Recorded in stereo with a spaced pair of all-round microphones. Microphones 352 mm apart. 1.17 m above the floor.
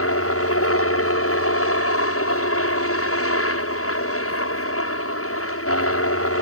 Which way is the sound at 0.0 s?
40° left (ahead or behind).